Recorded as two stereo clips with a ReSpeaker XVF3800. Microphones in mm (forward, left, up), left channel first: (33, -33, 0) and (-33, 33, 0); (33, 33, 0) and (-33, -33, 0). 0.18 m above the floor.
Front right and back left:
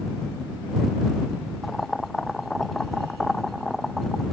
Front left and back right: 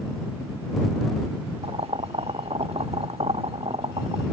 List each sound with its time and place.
1.6 s boiling: 135° right